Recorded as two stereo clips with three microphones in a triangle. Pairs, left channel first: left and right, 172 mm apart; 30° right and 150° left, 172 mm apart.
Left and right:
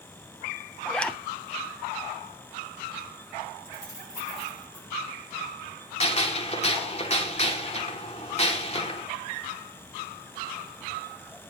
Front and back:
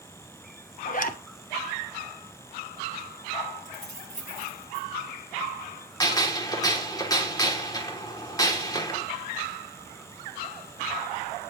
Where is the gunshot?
35° left, 3 m.